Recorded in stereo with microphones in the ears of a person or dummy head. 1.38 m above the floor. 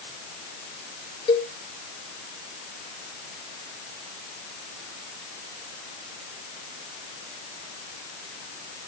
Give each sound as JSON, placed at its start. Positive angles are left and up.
{"t": 1.3, "sound": "a cowbell", "side_deg": 30, "distance_m": 2.0}